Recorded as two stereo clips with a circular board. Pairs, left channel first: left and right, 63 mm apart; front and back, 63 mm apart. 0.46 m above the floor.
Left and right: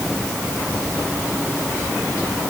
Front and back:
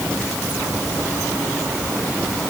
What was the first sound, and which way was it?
Only background noise.